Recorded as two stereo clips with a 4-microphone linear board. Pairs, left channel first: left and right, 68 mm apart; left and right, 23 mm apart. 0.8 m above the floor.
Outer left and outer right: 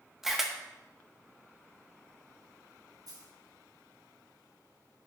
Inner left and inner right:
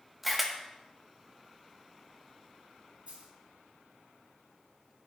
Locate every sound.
0.2 s a camera shutter: 5° right (ahead or behind), 1.1 m
3.1 s a dropped coin: 65° right (ahead or behind), 2 m